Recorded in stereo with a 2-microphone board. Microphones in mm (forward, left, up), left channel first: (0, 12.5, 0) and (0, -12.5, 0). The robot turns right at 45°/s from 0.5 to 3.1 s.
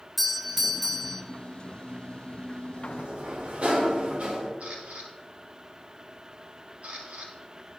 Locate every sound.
0.2 s a doorbell: 5° right (ahead or behind), 1.0 m; by 1.2 s 5° left (ahead or behind), 1.0 m
2.8 s a sliding door: 60° right (ahead or behind), 1.9 m; by 4.5 s 55° right (ahead or behind), 1.9 m
4.6 s a camera shutter: 60° right (ahead or behind), 2 m